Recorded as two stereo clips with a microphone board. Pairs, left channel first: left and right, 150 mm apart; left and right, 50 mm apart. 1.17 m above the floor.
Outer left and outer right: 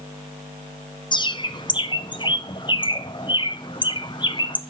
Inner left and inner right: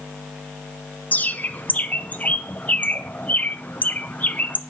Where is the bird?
30° left (ahead or behind), 0.5 m.